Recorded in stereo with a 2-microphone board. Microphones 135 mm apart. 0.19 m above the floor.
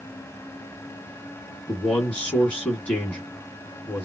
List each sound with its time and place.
1.7 s a man speaking: 10° left (ahead or behind), 2 m